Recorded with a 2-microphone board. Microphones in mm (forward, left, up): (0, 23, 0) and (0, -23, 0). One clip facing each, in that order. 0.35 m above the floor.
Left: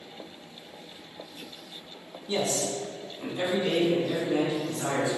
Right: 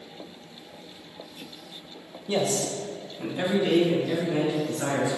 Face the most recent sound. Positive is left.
turn(degrees=-40)  # may be behind; listen again after turning